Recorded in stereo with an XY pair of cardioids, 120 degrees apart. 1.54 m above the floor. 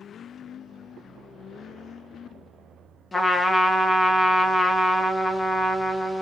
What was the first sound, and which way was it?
A trumpet, 15° left.